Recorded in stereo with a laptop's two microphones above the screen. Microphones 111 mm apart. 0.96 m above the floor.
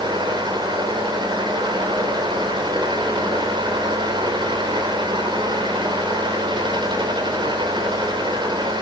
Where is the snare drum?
No snare drum in this recording.